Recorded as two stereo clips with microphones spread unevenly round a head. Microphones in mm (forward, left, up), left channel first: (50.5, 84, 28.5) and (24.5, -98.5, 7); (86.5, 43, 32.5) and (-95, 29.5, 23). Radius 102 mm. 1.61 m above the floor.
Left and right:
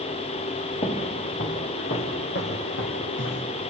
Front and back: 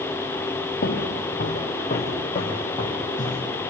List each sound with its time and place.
0.8 s footsteps: 35° left, 3.5 m; by 3.4 s 70° left, 5.5 m